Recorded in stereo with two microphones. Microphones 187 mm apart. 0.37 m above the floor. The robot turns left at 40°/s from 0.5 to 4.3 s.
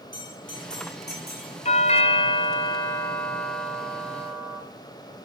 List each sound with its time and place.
0.1 s a bell: 90° left, 7 m; by 1.5 s 50° left, 7 m
1.6 s a doorbell: 85° left, 1.5 m; by 4.6 s 20° right, 1.5 m